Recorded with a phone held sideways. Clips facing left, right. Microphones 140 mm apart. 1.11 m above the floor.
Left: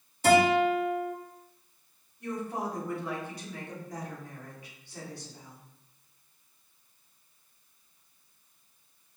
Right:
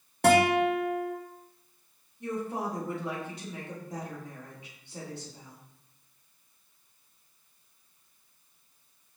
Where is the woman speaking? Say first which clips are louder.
Right 1 dB; 20° right (ahead or behind), 1.8 m.